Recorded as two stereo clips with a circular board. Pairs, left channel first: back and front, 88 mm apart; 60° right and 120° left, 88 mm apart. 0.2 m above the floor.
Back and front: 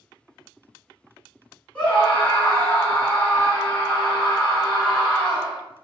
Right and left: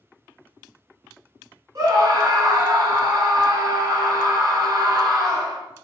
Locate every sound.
1.8 s a scream: 115° left, 1.6 m